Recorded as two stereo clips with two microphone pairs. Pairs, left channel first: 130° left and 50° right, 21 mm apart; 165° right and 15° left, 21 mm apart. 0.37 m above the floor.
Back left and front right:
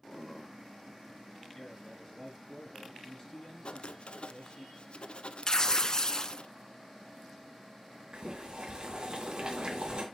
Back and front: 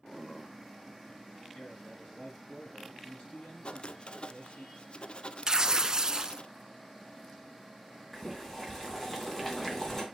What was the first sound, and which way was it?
A man speaking, 175° left.